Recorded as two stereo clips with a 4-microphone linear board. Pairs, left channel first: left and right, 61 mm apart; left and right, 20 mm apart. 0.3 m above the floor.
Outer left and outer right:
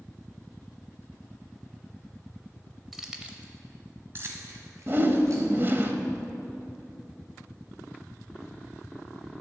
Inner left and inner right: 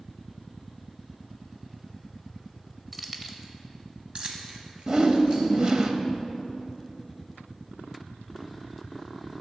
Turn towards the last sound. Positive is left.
turn(degrees=-40)  # may be behind; listen again after turning